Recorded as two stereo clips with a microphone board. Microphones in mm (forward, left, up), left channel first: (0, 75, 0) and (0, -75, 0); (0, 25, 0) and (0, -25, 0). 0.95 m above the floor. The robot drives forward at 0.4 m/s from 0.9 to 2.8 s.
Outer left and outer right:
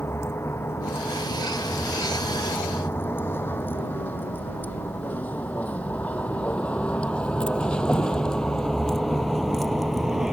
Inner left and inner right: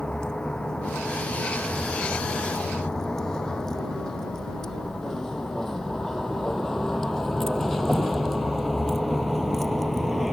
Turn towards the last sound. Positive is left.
turn(degrees=0)  # may be behind; listen again after turning